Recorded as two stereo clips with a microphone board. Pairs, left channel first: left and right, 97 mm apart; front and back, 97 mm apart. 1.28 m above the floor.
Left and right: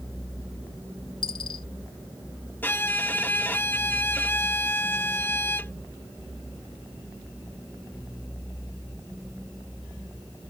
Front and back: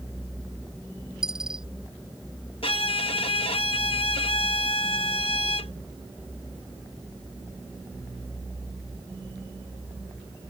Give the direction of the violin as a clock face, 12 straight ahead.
11 o'clock.